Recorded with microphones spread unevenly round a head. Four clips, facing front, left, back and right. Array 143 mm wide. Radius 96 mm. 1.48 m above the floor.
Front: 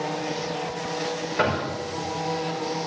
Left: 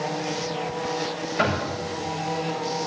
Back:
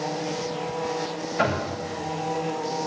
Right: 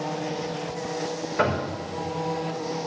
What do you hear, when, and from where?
1.4 s knocking: 40° right, 5.5 m